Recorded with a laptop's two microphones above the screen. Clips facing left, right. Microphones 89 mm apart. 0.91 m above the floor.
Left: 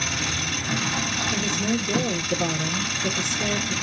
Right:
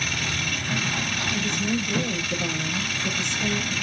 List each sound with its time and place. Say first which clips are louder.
0.0 s an engine running: left 1 dB; 20° left (ahead or behind), 1.8 m
1.3 s a woman speaking: left 1 dB; 45° left (ahead or behind), 1.3 m